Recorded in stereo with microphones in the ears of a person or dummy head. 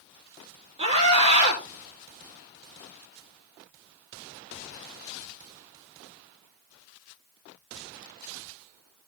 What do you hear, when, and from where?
0.8 s a scream: 35° right (ahead or behind), 5.5 m